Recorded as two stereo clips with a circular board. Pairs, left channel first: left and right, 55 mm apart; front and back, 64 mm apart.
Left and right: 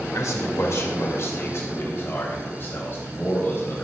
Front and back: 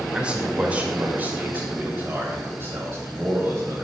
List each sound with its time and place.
0.1 s a man speaking: 110° left, 2 m; by 3.9 s 140° left, 4 m